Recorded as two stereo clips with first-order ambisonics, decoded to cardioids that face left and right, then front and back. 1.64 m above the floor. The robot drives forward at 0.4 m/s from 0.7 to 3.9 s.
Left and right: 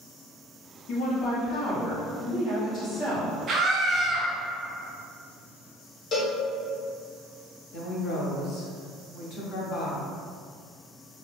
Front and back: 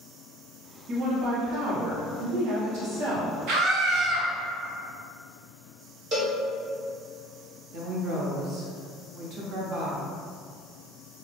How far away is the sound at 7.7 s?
About 0.7 m.